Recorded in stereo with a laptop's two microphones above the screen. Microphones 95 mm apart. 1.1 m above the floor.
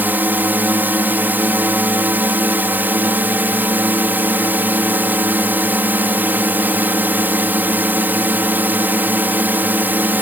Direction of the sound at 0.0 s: 20° right (ahead or behind).